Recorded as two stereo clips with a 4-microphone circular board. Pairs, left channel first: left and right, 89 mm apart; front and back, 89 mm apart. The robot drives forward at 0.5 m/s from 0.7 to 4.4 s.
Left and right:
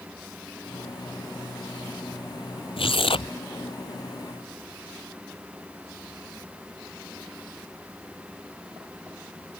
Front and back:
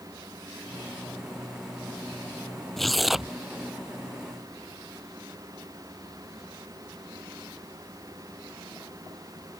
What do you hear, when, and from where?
2.8 s tearing paper: 85° left; by 3.4 s 95° left